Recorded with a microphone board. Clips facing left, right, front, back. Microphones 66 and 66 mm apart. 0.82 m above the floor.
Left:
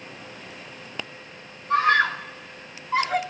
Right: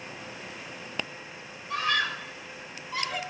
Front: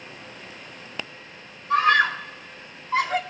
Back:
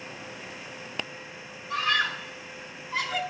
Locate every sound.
1.7 s a scream: 40° left, 3 m